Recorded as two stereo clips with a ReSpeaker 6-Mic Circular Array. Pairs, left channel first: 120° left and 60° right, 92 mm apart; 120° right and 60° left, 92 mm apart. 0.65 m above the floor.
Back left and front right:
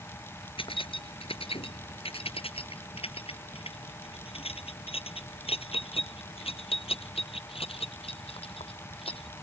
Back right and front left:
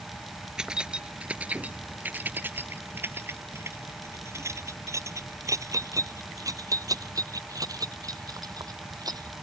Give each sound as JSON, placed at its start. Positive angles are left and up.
{"t": 0.6, "sound": "keys jangling", "azimuth_deg": 145}